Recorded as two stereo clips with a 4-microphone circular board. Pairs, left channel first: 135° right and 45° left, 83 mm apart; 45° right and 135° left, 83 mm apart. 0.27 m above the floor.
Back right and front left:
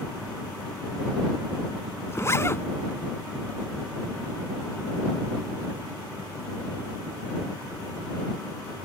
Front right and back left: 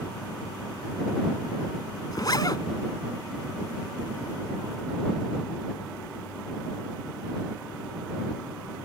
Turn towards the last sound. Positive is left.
turn(degrees=-80)